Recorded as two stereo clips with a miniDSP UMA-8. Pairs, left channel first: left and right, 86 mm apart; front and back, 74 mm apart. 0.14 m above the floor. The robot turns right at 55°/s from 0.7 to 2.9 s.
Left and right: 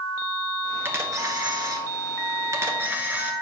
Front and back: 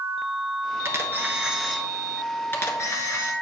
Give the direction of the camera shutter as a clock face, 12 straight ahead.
5 o'clock.